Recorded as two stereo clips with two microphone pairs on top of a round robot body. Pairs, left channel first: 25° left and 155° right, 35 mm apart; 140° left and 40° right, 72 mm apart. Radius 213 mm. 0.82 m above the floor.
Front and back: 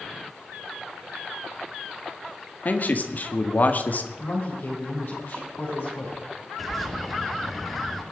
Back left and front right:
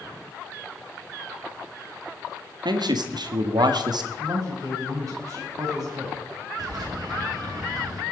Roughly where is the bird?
Ahead right.